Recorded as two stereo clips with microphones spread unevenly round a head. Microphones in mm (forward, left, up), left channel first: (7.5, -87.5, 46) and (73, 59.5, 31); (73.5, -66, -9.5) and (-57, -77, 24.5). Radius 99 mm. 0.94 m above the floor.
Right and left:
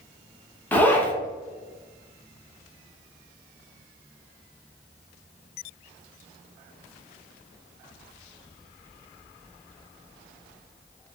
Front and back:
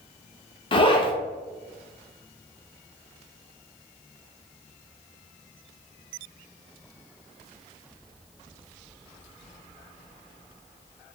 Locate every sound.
0.7 s a zipper: 35° right, 0.6 m